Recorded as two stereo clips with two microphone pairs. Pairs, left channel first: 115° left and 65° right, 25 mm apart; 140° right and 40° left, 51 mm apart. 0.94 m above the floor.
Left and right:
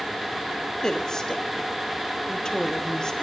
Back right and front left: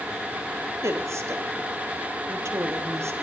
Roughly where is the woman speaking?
Ahead left.